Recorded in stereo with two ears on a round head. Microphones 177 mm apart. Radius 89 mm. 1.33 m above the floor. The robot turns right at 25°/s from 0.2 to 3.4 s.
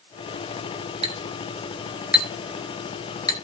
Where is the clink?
30° right (ahead or behind), 1.2 m; by 3.4 s 20° left (ahead or behind), 1.2 m.